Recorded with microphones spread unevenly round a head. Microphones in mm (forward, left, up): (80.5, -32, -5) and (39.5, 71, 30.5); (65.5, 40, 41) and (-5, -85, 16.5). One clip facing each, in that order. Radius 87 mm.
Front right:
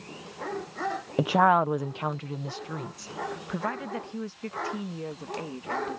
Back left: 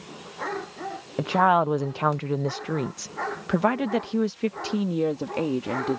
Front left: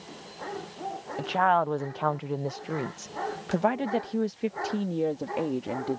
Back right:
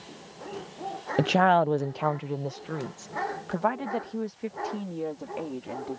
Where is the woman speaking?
155° right; by 6.0 s 120° left.